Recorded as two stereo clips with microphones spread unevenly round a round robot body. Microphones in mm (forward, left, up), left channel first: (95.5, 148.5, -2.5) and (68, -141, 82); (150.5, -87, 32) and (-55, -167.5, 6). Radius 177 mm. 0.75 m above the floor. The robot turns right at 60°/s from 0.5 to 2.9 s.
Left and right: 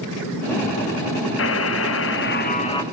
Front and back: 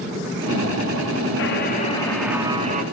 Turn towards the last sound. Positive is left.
turn(degrees=155)